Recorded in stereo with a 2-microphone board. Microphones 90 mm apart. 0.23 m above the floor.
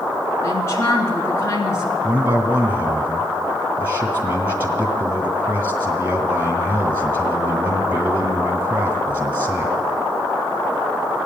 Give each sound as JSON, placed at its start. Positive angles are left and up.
{"t": 0.4, "sound": "a woman speaking", "side_deg": 30, "distance_m": 3.0}
{"t": 2.0, "sound": "a man speaking", "side_deg": -25, "distance_m": 2.5}